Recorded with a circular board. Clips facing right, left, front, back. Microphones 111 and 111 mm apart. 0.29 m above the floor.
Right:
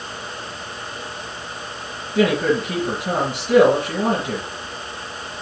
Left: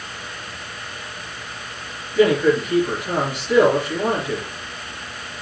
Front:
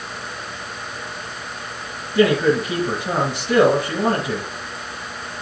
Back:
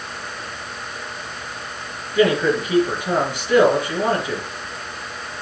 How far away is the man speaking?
About 4 m.